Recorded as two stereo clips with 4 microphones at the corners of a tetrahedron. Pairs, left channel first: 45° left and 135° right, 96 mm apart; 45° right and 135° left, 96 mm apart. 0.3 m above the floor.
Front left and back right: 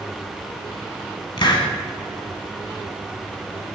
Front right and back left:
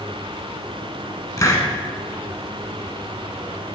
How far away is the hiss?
About 1.0 m.